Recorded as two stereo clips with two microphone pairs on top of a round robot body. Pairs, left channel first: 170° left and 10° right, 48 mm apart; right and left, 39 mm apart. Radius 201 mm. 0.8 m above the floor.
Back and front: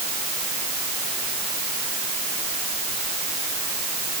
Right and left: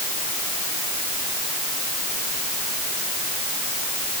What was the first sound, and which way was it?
Only background noise.